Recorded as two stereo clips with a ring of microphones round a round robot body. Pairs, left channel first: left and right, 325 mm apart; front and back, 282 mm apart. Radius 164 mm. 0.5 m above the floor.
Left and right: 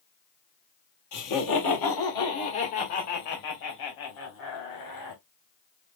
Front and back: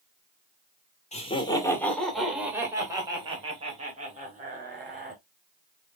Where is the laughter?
65° left, 1.7 m; by 5.2 s 120° left, 3.5 m.